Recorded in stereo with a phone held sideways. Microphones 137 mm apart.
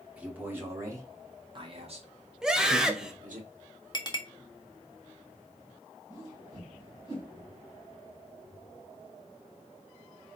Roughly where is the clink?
Left.